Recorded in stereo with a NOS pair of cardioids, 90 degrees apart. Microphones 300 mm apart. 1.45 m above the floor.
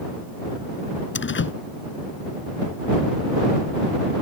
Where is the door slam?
40° left.